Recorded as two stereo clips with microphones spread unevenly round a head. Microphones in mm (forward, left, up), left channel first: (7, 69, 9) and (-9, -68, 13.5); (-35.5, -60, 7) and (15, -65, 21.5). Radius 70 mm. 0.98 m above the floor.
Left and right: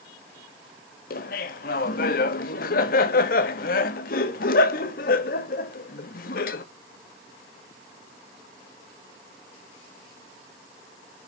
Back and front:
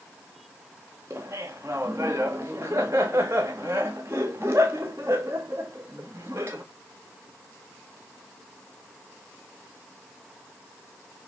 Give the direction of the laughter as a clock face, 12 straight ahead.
10 o'clock.